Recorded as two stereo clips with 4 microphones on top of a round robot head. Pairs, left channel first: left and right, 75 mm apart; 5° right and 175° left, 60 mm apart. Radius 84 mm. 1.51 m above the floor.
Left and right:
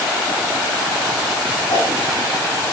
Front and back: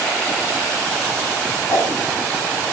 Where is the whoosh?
30° left, 3.5 m.